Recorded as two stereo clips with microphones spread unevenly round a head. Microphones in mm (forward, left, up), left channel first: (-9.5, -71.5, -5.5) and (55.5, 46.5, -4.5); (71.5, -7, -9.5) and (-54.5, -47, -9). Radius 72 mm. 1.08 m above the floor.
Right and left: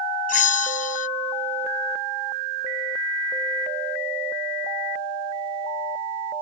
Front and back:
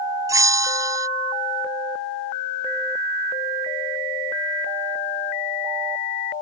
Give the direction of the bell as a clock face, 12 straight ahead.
3 o'clock.